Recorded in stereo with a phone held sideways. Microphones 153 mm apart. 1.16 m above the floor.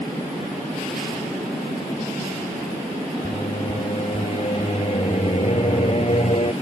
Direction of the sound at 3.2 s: 45° left (ahead or behind).